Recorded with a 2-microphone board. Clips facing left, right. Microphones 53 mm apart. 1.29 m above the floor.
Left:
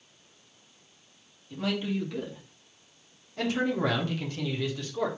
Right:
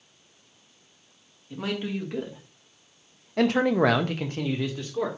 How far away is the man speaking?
About 2 m.